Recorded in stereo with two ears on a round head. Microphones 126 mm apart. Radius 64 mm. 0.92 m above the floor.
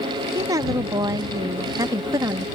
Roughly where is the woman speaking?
Right.